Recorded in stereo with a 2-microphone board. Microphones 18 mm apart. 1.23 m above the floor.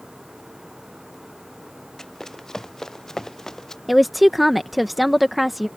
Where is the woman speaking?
5° right (ahead or behind).